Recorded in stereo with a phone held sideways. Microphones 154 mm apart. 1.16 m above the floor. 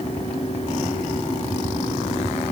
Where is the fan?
40° left (ahead or behind).